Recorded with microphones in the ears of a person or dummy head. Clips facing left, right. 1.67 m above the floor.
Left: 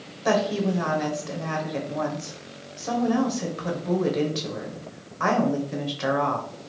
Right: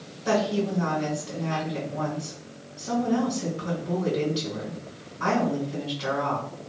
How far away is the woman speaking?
About 0.9 m.